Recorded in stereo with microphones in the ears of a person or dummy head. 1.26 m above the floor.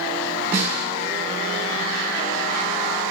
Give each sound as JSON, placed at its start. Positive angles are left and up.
{"t": 0.5, "sound": "a snare drum", "side_deg": -15, "distance_m": 1.9}